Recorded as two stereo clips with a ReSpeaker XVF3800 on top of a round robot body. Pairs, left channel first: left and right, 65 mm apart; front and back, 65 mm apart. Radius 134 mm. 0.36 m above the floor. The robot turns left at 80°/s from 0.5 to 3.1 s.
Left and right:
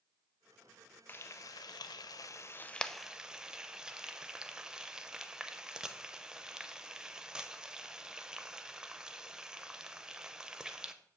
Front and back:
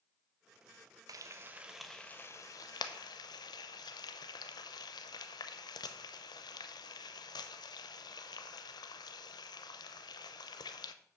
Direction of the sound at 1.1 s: 150° left.